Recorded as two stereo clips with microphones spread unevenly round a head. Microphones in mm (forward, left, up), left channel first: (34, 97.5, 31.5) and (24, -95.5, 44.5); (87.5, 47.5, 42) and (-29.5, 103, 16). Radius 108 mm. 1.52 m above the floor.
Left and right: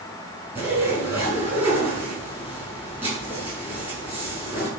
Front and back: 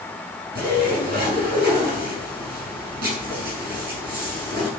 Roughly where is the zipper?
Behind.